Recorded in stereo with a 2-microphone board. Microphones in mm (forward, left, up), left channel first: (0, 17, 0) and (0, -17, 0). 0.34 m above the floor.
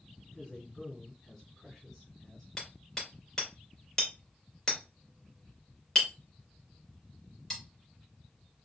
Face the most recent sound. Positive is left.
turn(degrees=15)  # may be behind; listen again after turning